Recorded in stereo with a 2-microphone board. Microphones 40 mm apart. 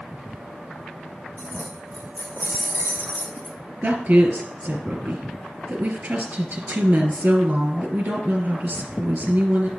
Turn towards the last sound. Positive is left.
turn(degrees=-45)  # may be behind; listen again after turning